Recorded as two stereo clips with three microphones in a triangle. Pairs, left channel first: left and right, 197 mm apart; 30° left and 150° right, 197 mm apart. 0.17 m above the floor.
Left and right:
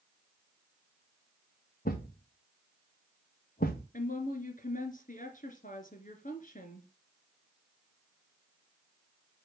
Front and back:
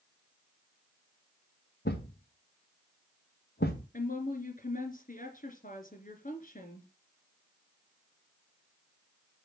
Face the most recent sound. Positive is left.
turn(degrees=60)